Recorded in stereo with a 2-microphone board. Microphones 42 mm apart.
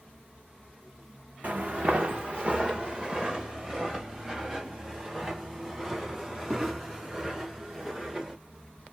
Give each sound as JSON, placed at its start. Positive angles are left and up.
{"t": 1.4, "sound": "footsteps", "side_deg": -35, "distance_m": 0.7}